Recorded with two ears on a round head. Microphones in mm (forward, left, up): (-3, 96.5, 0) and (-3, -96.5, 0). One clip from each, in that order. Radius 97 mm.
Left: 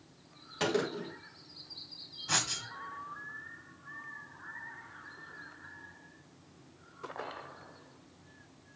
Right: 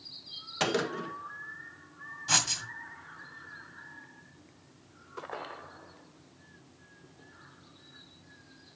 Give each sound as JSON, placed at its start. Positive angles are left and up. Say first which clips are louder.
{"t": 0.6, "sound": "a gunshot", "louder": "right 2 dB", "side_deg": -20, "distance_m": 1.6}
{"t": 2.3, "sound": "writing", "louder": "right 4 dB", "side_deg": -20, "distance_m": 1.9}